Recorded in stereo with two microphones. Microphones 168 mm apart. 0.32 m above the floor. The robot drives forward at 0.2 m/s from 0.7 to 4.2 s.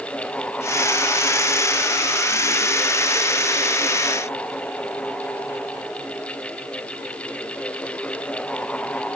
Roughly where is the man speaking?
I don't hear a man speaking.